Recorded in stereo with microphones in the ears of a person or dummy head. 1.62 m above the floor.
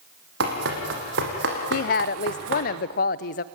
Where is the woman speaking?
45° left (ahead or behind), 0.6 m.